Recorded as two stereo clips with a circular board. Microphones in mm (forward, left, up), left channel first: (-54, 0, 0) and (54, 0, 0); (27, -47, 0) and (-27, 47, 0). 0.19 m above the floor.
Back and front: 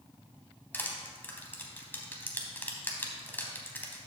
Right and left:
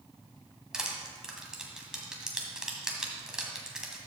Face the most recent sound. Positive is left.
turn(degrees=-170)